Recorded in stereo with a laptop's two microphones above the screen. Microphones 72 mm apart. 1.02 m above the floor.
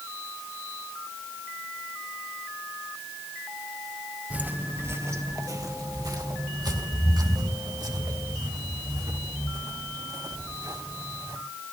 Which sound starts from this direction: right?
Footsteps, at 4.3 s.